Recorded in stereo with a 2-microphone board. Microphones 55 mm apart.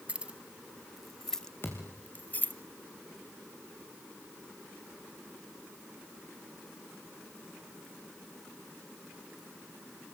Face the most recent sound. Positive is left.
turn(degrees=40)  # may be behind; listen again after turning